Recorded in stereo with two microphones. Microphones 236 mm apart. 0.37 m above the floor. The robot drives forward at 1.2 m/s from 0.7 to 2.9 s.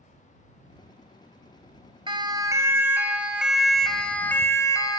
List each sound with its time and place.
2.1 s a siren: 20° right (ahead or behind), 2.5 m; by 5.0 s 15° left (ahead or behind), 2.5 m